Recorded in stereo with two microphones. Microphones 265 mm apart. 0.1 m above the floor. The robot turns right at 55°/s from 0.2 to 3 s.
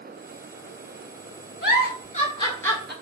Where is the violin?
No violin in this recording.